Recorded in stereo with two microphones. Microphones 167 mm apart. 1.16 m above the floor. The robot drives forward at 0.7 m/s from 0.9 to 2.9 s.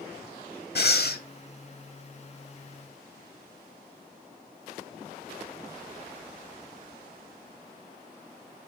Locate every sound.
0.8 s breathing: 75° left (ahead or behind), 1.6 m; by 1.2 s 80° left, 1.5 m